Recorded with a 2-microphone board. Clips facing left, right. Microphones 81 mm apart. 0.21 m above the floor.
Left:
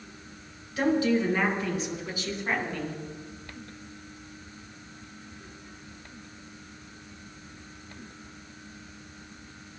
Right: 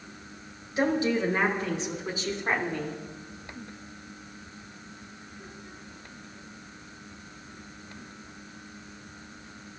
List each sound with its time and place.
0.8 s a woman speaking: 20° right (ahead or behind), 3 m; by 3.0 s 25° right (ahead or behind), 1.5 m